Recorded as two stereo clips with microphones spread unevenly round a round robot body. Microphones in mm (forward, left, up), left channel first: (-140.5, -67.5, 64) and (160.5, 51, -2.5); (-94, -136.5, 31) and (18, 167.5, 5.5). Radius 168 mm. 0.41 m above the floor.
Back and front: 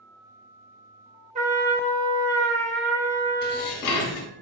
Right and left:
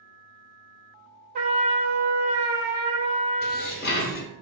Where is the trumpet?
85° left, 0.8 m.